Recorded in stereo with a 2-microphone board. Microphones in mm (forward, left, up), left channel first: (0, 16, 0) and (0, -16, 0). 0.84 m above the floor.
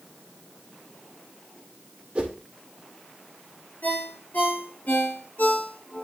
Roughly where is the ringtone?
Left.